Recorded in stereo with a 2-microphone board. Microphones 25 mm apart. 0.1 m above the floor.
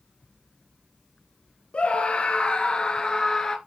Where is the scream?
45° left (ahead or behind), 1.5 m; by 3.6 s 25° left (ahead or behind), 1.2 m.